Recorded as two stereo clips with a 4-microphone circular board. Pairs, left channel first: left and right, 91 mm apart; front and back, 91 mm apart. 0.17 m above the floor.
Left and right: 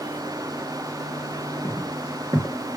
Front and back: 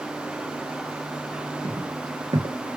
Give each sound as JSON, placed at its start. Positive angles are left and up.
{"t": 1.6, "sound": "footsteps", "azimuth_deg": -140, "distance_m": 1.1}